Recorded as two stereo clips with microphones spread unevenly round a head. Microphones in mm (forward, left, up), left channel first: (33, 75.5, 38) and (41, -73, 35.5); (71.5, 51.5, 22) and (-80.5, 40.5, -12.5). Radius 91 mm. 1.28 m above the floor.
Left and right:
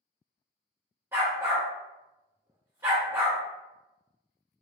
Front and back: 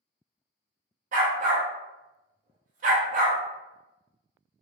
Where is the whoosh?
No whoosh in this recording.